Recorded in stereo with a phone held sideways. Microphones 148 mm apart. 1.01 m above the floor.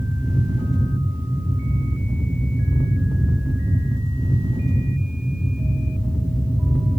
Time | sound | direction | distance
0.0 | a fan | centre (ahead or behind) | 1.5 m